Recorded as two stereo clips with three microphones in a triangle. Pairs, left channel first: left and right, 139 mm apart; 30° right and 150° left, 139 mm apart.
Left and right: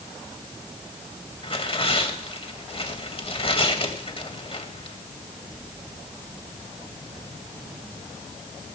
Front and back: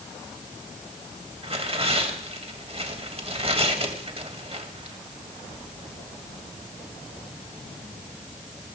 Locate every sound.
1.4 s tearing paper: 125° left, 2.5 m